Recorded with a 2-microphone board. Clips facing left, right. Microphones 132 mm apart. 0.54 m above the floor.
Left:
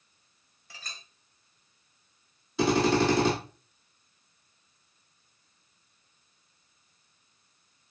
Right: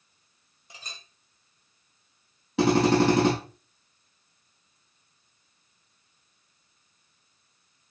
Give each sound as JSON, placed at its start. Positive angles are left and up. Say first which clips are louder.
{"t": 0.7, "sound": "a clink", "louder": "right 1 dB", "side_deg": -20, "distance_m": 1.5}
{"t": 2.6, "sound": "a drill", "louder": "right 3 dB", "side_deg": -80, "distance_m": 5.5}